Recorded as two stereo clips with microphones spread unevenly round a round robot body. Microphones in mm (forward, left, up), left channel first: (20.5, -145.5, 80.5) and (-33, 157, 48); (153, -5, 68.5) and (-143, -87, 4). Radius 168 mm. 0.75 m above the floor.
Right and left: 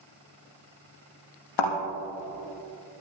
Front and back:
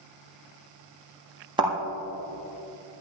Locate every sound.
1.6 s a thud: 85° right, 4.5 m